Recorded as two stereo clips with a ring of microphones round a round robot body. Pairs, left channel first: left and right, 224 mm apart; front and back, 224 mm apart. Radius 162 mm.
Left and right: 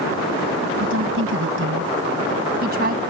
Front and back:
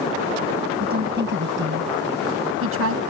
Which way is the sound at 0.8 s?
125° right.